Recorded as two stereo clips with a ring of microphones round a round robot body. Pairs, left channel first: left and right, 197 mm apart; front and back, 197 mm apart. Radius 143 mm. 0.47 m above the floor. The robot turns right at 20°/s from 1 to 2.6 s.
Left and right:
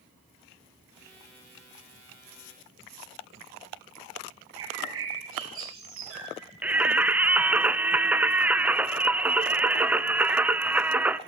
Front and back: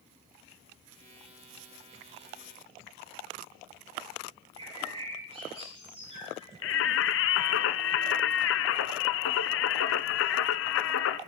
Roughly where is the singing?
Ahead.